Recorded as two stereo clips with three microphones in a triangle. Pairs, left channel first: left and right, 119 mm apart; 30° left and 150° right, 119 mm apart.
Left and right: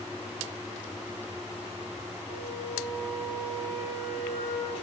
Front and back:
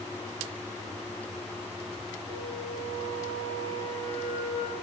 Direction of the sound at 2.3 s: 110° right.